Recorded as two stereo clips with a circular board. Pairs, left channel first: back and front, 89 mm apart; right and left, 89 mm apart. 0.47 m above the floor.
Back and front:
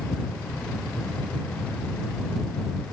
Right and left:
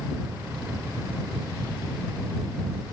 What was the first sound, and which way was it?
Only background noise.